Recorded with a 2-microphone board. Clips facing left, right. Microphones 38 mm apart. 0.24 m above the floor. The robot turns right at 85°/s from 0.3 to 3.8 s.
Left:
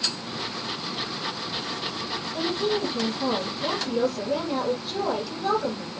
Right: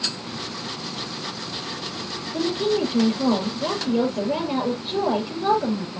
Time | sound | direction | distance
2.3 | a woman speaking | 150° right | 4.5 m